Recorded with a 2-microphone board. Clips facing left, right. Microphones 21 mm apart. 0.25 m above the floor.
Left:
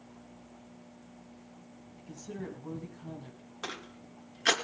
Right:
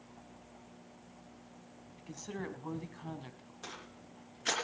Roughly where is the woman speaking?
Right.